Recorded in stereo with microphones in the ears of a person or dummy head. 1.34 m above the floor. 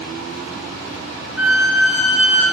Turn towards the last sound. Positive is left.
turn(degrees=0)  # may be behind; listen again after turning